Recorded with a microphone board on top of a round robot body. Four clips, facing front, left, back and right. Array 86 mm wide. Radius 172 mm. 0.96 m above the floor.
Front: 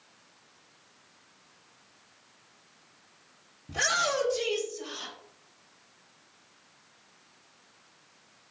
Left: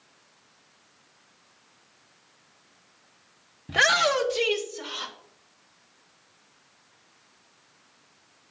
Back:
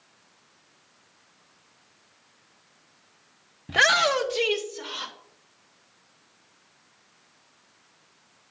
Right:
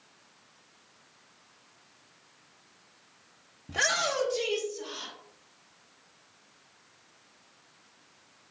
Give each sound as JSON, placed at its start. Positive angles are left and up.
{"t": 3.7, "sound": "a shout", "azimuth_deg": 155, "distance_m": 0.9}